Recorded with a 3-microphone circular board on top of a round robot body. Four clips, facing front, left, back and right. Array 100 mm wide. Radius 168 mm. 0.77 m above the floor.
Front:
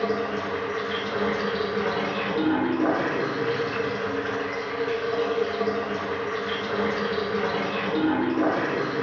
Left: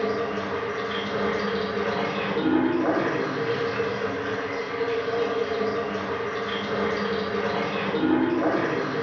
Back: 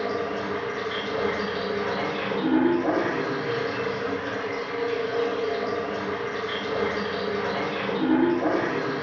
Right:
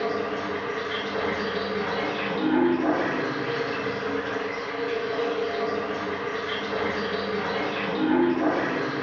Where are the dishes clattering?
I don't hear dishes clattering.